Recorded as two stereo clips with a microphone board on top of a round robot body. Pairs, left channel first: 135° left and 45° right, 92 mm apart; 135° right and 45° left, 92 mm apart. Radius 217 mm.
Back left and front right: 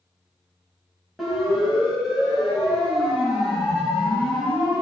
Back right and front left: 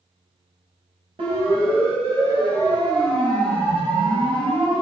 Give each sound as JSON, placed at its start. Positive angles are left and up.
{"t": 1.2, "sound": "a siren", "azimuth_deg": 40, "distance_m": 7.0}